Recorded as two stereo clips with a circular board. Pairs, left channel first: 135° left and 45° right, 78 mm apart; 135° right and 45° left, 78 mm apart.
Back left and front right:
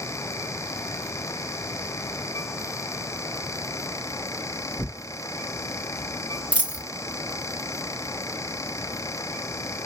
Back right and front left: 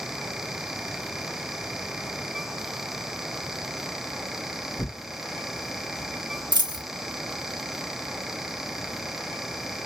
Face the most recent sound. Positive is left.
turn(degrees=25)